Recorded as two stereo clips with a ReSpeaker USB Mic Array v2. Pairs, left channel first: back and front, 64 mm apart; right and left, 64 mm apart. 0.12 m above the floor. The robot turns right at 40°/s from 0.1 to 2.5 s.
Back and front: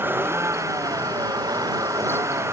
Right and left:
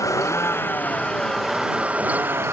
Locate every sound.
0.0 s a vehicle: 55° right; by 2.5 s 40° left